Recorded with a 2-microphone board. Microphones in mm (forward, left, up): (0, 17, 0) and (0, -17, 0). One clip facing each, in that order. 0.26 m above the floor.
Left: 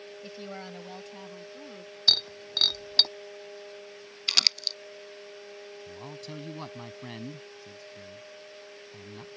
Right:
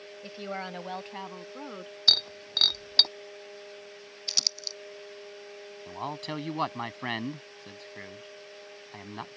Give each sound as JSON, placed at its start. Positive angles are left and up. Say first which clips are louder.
{"t": 0.2, "sound": "a woman speaking", "louder": "right 6 dB", "side_deg": -15}
{"t": 2.1, "sound": "breaking glass", "louder": "right 1 dB", "side_deg": -10}
{"t": 4.3, "sound": "crumpling", "louder": "left 7 dB", "side_deg": 65}
{"t": 5.9, "sound": "a man speaking", "louder": "right 10 dB", "side_deg": -55}